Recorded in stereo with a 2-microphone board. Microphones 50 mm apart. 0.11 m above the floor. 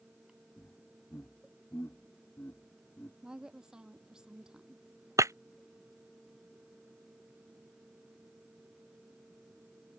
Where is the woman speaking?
10° right (ahead or behind).